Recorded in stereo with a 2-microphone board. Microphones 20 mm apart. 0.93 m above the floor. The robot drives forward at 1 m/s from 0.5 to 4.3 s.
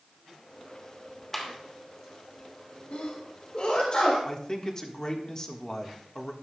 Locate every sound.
1.3 s a clap: 15° left (ahead or behind), 2.5 m
2.9 s a sneeze: 60° left (ahead or behind), 1.6 m; by 4.2 s 45° left (ahead or behind), 2 m
4.2 s a man speaking: 30° left (ahead or behind), 1.4 m